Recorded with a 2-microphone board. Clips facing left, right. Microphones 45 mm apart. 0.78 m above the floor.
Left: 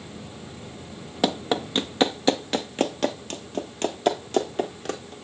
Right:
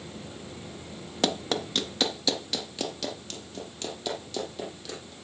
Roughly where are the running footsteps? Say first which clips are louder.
Left 4 dB; centre.